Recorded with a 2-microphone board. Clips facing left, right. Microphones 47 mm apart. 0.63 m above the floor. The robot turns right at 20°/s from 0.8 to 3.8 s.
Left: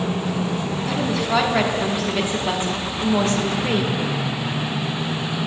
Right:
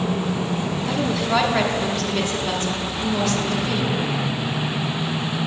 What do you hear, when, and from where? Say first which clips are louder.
0.9 s a woman speaking: even; 10° right, 1.2 m; by 4.0 s 50° left, 1.2 m